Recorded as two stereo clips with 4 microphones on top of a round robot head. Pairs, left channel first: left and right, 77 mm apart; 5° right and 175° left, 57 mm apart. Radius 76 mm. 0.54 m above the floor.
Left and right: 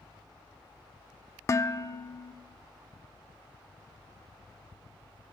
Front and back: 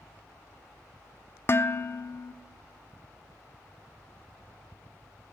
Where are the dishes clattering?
40° left, 0.8 m.